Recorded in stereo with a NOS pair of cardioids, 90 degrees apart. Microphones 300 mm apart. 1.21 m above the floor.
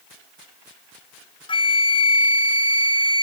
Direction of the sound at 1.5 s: 15° left.